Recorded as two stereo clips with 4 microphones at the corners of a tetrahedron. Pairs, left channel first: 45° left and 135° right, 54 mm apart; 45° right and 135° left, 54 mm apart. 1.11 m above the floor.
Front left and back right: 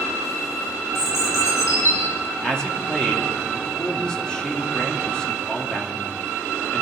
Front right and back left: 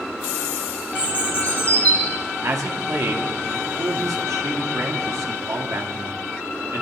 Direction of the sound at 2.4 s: 120° left.